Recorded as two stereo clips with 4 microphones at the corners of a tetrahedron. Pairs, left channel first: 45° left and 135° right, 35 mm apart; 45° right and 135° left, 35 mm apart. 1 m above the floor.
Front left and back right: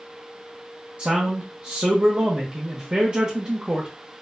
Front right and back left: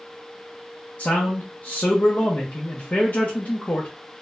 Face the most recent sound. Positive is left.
turn(degrees=-90)